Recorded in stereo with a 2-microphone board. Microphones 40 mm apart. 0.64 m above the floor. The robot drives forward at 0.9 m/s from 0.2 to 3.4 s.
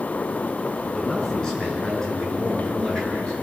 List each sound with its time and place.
0.9 s a man speaking: 15° left (ahead or behind), 6 m; by 3.3 s 10° left (ahead or behind), 8.5 m